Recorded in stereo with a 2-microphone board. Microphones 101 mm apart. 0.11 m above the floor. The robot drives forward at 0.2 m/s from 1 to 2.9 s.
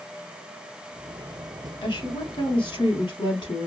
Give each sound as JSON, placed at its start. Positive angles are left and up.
{"t": 1.8, "sound": "a woman speaking", "side_deg": 60, "distance_m": 2.5}